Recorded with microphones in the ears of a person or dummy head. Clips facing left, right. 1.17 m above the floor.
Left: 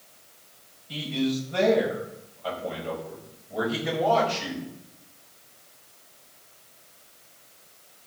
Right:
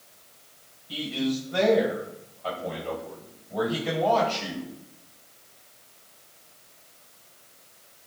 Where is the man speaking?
10° right (ahead or behind), 7 m; by 4.7 s 10° left (ahead or behind), 6 m.